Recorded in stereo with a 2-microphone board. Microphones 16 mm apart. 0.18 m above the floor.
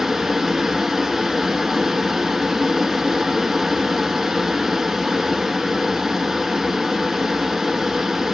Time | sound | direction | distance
0.0 | running water | 30° right (ahead or behind) | 1.0 m